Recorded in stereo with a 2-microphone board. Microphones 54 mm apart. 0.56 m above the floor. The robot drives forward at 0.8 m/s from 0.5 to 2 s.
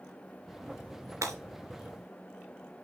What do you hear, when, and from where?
1.2 s breaking glass: 75° right (ahead or behind), 3.5 m; by 1.4 s 70° right (ahead or behind), 3.5 m